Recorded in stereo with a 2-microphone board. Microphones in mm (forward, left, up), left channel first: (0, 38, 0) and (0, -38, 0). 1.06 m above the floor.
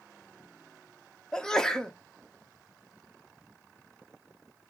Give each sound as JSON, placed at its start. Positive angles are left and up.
{"t": 1.3, "sound": "a sneeze", "side_deg": 5, "distance_m": 0.6}